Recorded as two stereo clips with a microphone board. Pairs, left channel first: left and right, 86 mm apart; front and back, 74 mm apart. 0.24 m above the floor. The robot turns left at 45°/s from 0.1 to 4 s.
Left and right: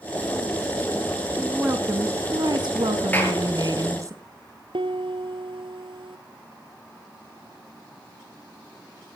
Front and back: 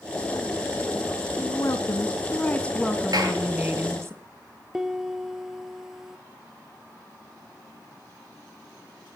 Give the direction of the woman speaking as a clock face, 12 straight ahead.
12 o'clock.